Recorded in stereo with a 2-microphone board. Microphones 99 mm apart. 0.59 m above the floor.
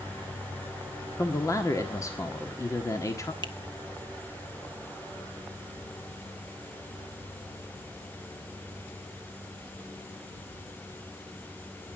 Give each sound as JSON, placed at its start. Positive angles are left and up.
{"t": 1.2, "sound": "a man speaking", "side_deg": 35, "distance_m": 1.6}
{"t": 3.4, "sound": "a finger snap", "side_deg": 50, "distance_m": 1.4}